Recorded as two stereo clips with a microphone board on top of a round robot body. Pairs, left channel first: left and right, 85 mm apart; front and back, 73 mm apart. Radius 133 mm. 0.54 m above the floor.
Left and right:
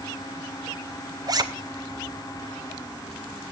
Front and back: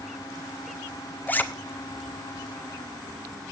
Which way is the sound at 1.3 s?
60° right.